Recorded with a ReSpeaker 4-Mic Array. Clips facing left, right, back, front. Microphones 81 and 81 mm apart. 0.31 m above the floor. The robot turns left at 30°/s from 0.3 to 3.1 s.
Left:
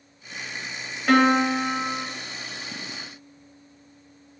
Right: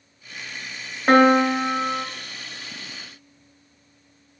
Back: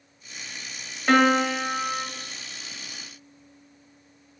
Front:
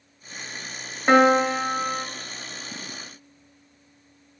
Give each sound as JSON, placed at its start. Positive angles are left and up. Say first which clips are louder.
{"t": 1.1, "sound": "a piano", "louder": "right 4 dB, front 3 dB", "azimuth_deg": -55, "distance_m": 0.9}